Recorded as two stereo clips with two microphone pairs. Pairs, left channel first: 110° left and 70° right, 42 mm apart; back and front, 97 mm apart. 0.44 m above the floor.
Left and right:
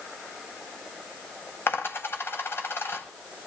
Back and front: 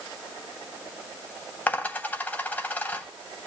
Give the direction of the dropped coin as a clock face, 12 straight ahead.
8 o'clock.